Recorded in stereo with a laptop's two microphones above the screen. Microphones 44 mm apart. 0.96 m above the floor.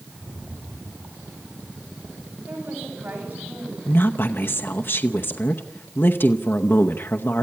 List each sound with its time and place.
0.1 s a rattle: 45° right (ahead or behind), 6 m
2.5 s a woman speaking: 50° right (ahead or behind), 7 m
3.9 s a woman speaking: 55° left (ahead or behind), 0.8 m